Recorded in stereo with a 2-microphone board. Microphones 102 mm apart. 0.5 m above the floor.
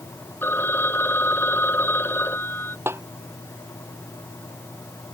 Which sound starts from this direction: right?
A snare drum, at 2.9 s.